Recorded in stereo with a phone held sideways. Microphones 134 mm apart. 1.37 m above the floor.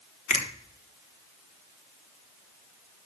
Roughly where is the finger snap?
Left.